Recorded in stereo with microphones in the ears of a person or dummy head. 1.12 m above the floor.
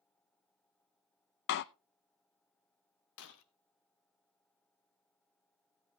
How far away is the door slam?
About 0.5 m.